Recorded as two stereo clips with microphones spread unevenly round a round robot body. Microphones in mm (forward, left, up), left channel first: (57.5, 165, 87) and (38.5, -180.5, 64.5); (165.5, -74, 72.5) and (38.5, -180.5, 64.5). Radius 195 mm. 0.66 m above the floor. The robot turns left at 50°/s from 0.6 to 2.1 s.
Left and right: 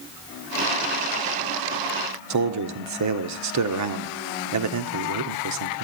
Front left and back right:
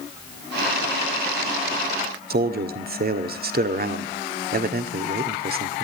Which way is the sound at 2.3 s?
130° right.